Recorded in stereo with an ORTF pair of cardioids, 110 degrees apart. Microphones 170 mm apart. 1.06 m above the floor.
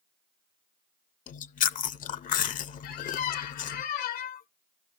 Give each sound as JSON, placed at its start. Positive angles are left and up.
{"t": 1.3, "sound": "chewing", "azimuth_deg": 55, "distance_m": 0.6}
{"t": 2.8, "sound": "a squeak", "azimuth_deg": 65, "distance_m": 0.6}